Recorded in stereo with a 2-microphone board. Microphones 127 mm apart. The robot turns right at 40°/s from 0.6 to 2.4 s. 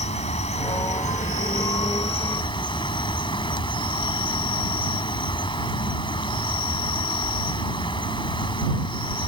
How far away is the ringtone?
No ringtone in this recording.